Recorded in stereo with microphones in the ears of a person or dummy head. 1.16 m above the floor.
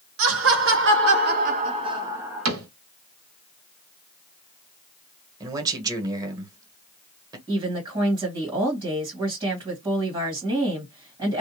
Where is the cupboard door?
85° right, 1.3 m.